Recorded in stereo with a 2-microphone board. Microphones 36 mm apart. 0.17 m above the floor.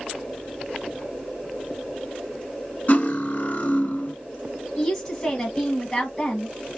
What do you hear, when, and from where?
2.9 s cutlery clinking: 45° left (ahead or behind), 1.1 m
4.8 s a woman speaking: 15° left (ahead or behind), 1.0 m